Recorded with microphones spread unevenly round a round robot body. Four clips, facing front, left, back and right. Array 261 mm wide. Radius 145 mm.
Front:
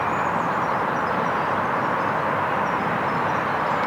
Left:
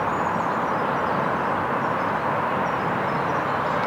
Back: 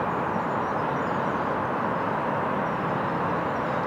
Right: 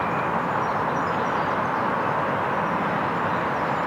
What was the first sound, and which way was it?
Only background noise.